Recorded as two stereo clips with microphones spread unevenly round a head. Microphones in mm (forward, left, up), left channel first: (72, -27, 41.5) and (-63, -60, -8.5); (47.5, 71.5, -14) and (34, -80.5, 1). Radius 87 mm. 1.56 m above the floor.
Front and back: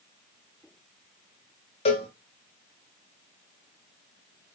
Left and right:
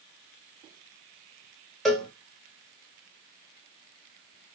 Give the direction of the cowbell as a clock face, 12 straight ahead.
12 o'clock.